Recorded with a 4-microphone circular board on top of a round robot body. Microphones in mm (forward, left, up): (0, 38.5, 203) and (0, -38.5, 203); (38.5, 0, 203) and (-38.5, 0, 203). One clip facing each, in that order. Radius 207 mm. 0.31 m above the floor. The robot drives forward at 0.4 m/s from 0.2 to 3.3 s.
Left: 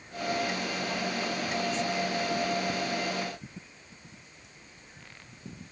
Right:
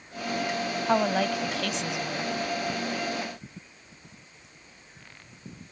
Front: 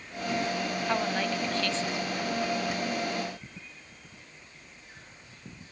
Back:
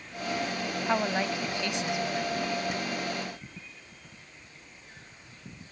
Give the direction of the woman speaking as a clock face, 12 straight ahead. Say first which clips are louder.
Right 13 dB, back 2 dB; 3 o'clock.